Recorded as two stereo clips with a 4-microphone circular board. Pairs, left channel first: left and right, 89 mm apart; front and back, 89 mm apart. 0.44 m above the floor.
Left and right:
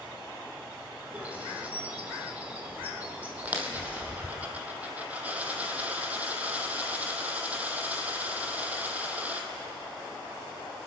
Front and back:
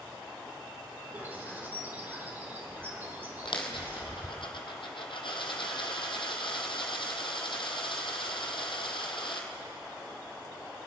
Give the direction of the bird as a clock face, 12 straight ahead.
5 o'clock.